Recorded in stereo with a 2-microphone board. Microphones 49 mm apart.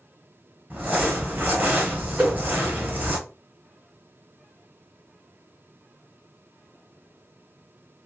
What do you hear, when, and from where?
0.7 s crumpling: 35° right (ahead or behind), 1.0 m
2.2 s a whoosh: 35° right (ahead or behind), 1.7 m